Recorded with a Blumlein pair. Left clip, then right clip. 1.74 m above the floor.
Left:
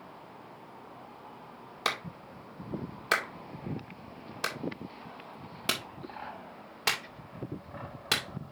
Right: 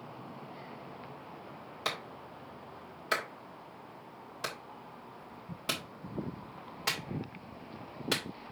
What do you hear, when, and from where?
1.9 s a clap: 20° left, 2.0 m